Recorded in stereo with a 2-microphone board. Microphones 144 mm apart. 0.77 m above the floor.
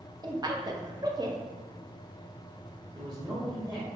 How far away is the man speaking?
About 1.5 m.